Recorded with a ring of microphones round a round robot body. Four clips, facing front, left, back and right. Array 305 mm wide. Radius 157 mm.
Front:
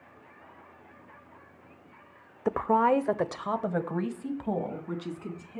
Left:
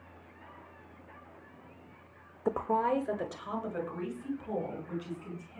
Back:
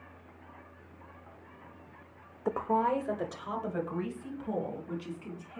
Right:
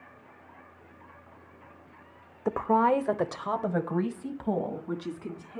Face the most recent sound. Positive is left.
turn(degrees=-50)